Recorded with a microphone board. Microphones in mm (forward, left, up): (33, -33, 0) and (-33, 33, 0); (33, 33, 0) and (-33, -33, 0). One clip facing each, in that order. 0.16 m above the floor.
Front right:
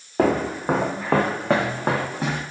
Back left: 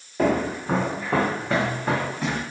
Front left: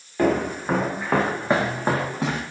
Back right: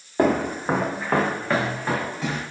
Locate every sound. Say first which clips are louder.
0.2 s footsteps: front right 2 dB, back right 1 dB; 80° right, 1.0 m; by 2.4 s 10° left, 1.0 m